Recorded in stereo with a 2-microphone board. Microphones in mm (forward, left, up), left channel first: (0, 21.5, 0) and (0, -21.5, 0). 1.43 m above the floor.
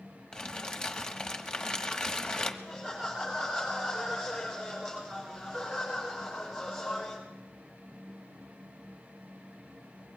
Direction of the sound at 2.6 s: Centre (ahead or behind).